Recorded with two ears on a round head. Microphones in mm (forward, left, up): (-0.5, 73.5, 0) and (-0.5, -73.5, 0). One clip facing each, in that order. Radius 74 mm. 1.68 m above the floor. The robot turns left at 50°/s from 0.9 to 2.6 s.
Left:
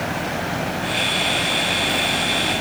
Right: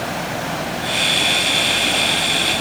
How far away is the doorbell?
No doorbell in this recording.